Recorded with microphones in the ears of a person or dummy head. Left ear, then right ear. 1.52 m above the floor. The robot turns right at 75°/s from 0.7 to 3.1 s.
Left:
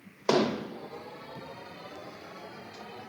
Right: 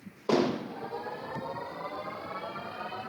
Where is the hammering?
50° left (ahead or behind), 0.8 m.